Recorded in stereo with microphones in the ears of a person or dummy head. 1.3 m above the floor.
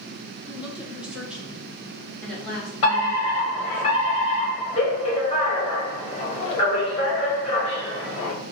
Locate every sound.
0.5 s a woman speaking: 5° right (ahead or behind), 1.0 m; by 3.8 s 5° left (ahead or behind), 3 m
2.8 s a fire alarm: 35° left (ahead or behind), 1.7 m